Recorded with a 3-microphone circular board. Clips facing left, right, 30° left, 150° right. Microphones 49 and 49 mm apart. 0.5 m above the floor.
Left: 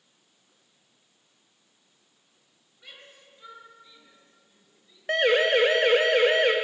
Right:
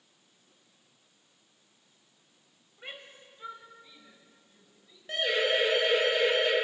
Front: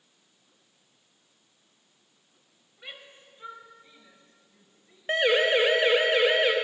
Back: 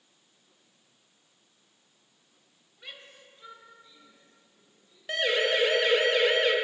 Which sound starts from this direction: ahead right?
A shout, at 2.8 s.